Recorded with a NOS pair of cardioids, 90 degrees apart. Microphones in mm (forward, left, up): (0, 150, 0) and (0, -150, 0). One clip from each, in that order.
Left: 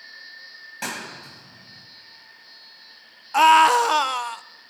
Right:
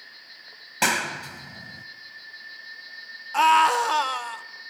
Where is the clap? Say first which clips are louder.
Right 9 dB; 65° right, 1.4 m.